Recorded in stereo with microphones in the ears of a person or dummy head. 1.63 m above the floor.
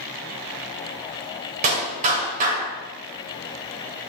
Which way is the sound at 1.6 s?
40° right (ahead or behind).